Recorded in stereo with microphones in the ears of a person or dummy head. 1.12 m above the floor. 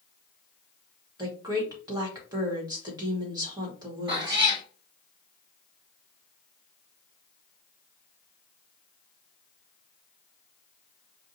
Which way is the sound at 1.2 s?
20° right (ahead or behind).